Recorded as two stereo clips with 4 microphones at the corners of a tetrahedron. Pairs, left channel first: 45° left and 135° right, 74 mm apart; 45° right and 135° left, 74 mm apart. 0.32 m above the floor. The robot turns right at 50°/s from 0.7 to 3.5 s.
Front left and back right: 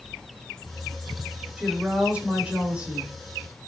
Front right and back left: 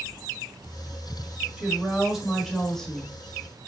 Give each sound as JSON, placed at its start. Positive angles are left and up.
{"t": 1.6, "sound": "a woman speaking", "azimuth_deg": -175, "distance_m": 1.2}